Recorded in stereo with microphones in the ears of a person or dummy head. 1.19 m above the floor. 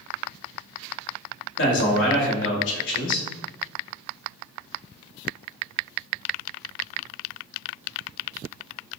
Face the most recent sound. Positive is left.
turn(degrees=60)  # may be behind; listen again after turning